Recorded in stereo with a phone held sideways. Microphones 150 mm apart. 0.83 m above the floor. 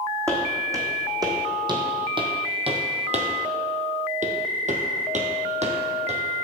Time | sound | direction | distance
0.3 | footsteps | 20° right (ahead or behind) | 2.5 m